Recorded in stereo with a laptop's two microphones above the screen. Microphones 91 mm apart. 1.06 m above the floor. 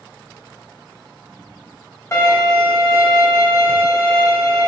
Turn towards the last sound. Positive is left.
turn(degrees=30)  # may be behind; listen again after turning